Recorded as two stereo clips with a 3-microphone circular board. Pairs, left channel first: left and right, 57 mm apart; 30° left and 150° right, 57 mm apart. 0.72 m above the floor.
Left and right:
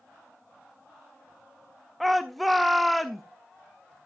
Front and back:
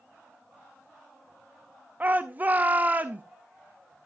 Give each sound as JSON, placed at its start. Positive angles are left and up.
{"t": 2.0, "sound": "a shout", "azimuth_deg": 180, "distance_m": 0.6}